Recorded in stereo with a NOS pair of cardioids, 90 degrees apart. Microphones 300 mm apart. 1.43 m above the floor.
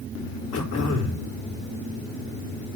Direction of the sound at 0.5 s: 60° left.